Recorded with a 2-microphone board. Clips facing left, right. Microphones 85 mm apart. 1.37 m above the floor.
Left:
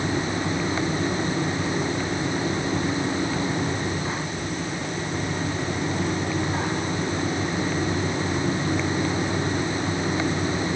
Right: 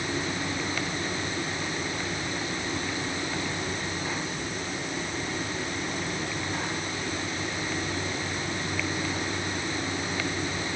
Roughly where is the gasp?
No gasp in this recording.